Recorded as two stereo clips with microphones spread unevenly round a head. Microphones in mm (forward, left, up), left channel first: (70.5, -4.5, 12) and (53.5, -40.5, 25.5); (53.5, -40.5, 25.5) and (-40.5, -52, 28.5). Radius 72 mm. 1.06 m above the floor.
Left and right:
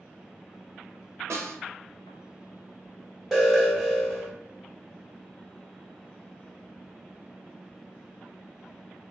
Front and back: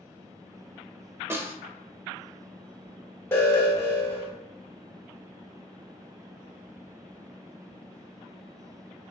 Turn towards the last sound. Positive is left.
turn(degrees=15)